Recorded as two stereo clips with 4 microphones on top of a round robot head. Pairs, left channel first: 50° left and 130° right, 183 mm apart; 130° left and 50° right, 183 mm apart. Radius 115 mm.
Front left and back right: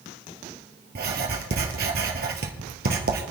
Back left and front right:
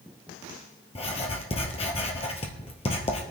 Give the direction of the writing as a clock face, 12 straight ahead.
6 o'clock.